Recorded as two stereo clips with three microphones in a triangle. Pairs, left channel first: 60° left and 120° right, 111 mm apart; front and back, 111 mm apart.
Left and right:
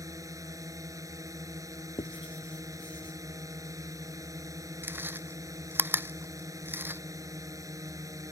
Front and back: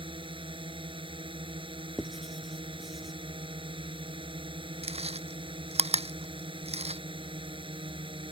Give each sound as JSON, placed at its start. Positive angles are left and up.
{"t": 0.0, "sound": "a drone", "azimuth_deg": -170}
{"t": 2.0, "sound": "writing", "azimuth_deg": 90}
{"t": 4.8, "sound": "chewing", "azimuth_deg": 170}